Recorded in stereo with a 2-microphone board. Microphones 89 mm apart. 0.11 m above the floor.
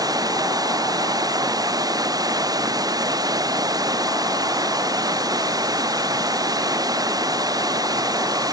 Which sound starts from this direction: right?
Running water, at 0.0 s.